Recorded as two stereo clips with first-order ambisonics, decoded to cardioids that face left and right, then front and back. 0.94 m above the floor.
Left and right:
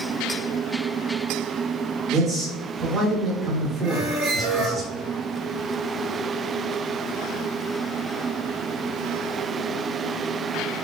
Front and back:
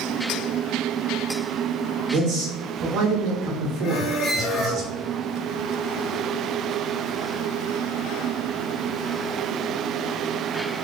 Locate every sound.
2.1 s a man speaking: 155° right, 1.7 m
3.8 s a squeak: 55° right, 1.5 m